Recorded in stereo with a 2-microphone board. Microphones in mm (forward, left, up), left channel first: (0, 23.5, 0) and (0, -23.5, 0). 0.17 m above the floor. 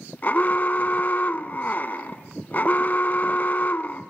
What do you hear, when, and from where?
0.2 s an alarm: 40° left (ahead or behind), 0.9 m